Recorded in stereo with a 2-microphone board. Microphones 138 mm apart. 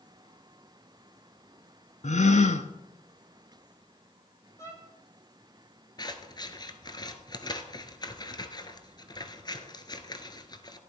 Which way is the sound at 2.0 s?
60° left (ahead or behind).